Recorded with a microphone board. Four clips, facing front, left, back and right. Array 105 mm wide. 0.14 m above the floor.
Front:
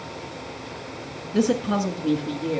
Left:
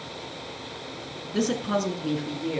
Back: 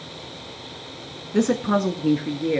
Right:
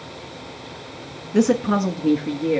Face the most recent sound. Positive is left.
turn(degrees=-145)